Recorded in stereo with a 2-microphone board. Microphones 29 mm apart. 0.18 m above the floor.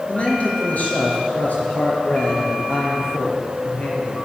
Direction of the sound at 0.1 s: 45° left (ahead or behind).